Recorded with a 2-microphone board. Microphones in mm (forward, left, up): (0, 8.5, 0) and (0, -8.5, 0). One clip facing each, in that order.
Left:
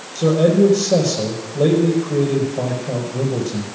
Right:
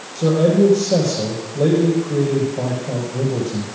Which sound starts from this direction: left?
A man speaking, at 0.1 s.